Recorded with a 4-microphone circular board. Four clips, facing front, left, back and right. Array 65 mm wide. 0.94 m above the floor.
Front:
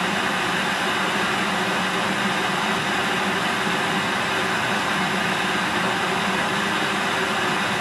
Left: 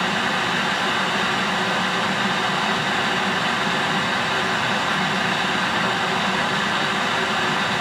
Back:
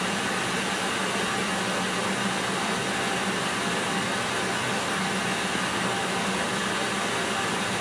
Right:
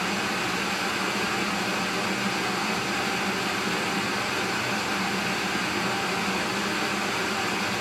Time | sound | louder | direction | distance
0.0 | running water | left 6 dB, front 5 dB | 55° left | 2 m